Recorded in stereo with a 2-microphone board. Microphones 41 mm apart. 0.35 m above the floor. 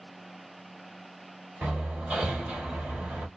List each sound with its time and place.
1.6 s hammering: 40° right (ahead or behind), 1.4 m